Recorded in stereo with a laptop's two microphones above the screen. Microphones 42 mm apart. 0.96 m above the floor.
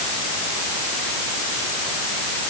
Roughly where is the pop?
No pop in this recording.